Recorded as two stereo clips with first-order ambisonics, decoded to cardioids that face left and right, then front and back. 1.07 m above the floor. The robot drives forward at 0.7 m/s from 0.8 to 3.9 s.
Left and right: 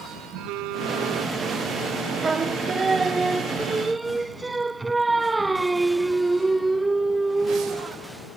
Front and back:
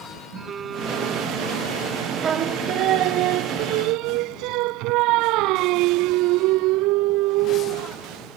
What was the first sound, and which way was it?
A phone buzzing, 115° right.